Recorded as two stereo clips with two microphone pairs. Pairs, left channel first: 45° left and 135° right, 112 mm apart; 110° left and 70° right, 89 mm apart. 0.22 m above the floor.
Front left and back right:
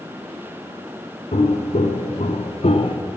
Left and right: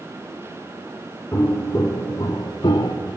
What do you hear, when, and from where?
1.3 s footsteps: 45° left, 2 m; by 3.0 s 75° left, 1.3 m